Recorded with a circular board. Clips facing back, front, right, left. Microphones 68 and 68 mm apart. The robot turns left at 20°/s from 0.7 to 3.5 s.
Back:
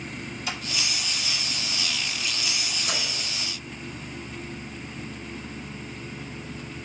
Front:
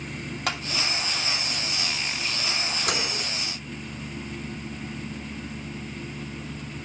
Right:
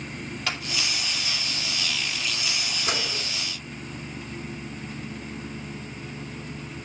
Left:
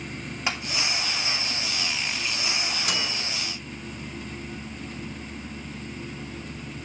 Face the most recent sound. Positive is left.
turn(degrees=-45)